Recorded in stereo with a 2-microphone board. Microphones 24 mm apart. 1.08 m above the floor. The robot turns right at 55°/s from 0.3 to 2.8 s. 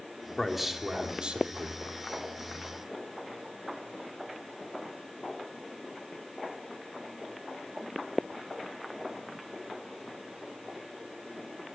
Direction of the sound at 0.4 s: 175° left.